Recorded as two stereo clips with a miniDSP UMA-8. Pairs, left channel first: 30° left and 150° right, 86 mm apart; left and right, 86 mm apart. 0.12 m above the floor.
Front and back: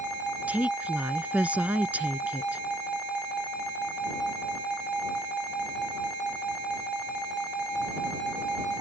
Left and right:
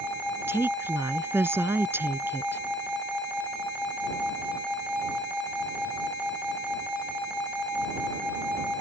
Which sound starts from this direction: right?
A woman speaking, at 0.5 s.